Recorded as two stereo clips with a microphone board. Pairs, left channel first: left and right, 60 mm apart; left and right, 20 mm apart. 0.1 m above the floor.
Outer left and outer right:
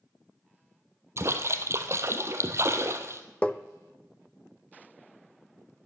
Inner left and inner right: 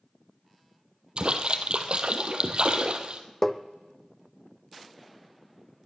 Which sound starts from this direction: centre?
Tapping, at 3.4 s.